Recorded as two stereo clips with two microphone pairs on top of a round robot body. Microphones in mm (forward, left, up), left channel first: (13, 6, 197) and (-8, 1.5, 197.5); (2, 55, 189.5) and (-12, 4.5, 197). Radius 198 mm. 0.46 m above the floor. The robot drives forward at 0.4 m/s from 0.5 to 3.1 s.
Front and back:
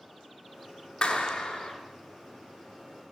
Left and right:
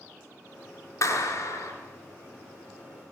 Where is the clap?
40° left, 6 m; by 1.7 s 45° left, 6 m.